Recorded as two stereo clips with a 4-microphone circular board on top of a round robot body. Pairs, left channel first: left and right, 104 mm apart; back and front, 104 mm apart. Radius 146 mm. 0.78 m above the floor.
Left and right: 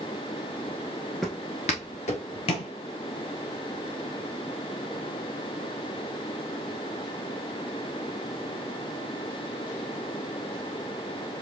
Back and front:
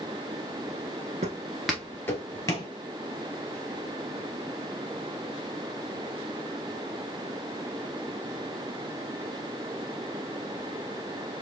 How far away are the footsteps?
About 0.7 m.